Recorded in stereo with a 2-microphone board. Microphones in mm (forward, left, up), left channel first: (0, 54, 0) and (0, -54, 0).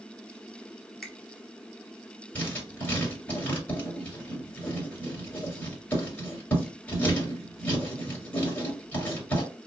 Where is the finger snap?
Centre (ahead or behind), 0.7 m.